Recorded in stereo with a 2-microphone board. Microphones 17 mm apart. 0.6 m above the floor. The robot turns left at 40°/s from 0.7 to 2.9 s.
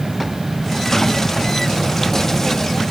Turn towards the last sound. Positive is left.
No sound to turn to.